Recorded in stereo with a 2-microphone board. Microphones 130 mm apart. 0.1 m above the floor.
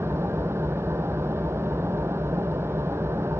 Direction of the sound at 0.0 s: 20° right (ahead or behind).